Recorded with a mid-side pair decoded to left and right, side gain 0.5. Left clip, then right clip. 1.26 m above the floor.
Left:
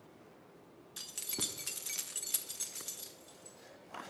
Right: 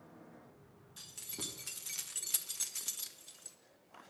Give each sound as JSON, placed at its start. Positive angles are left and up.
{"t": 1.0, "sound": "keys jangling", "azimuth_deg": 50, "distance_m": 1.1}